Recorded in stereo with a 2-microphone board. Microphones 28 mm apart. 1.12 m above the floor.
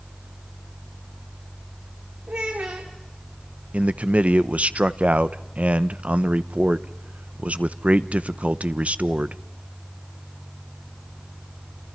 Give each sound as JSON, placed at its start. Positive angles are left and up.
{"t": 2.3, "sound": "a child speaking", "side_deg": -80, "distance_m": 2.0}
{"t": 3.7, "sound": "a man speaking", "side_deg": -55, "distance_m": 0.7}